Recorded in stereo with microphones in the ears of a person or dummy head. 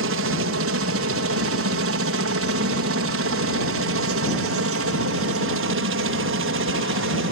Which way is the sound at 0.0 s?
65° right (ahead or behind).